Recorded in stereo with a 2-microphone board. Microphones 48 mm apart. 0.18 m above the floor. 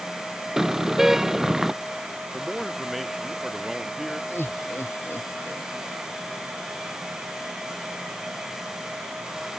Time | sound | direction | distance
0.6 | a car horn | 10° right (ahead or behind) | ?
2.3 | a man speaking | centre (ahead or behind) | ?
4.3 | laughter | 55° left (ahead or behind) | ?